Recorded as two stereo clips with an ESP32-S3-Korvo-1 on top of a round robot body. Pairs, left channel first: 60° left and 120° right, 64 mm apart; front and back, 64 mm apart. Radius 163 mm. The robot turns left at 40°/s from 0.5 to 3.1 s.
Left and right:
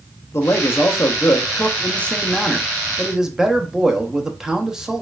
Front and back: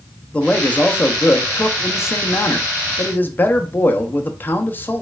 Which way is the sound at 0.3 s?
60° left.